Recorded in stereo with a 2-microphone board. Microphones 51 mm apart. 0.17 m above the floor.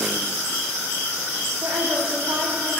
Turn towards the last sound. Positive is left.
turn(degrees=-70)  # may be behind; listen again after turning